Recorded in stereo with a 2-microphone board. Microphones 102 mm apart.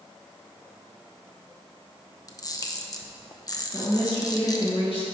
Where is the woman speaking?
55° left (ahead or behind), 1.6 m.